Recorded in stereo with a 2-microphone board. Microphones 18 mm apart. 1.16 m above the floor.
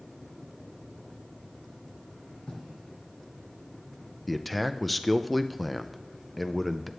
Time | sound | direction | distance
2.5 | writing | 65° left (ahead or behind) | 4 m
4.3 | a man speaking | 5° left (ahead or behind) | 0.5 m